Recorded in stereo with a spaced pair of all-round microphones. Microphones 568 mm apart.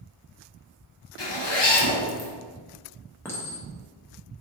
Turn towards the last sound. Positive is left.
turn(degrees=5)  # may be behind; listen again after turning